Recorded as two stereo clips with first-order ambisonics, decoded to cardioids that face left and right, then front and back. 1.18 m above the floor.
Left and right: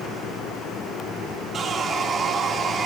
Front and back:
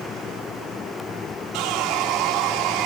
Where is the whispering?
No whispering in this recording.